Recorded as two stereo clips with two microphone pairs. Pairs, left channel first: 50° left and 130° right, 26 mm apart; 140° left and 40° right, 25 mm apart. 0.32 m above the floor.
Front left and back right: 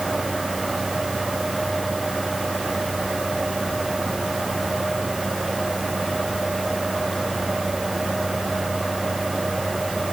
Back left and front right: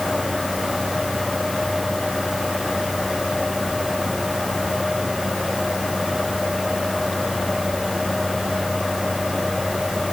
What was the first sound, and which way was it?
Only background noise.